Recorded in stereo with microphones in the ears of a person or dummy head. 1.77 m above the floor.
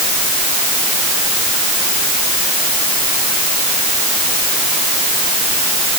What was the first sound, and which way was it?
Only background noise.